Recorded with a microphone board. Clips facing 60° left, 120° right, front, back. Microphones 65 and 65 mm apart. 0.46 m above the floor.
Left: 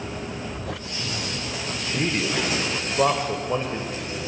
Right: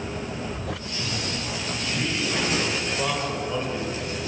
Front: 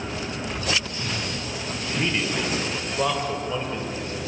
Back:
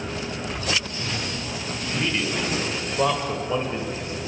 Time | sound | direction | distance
1.9 | a man speaking | 70° left | 1.9 m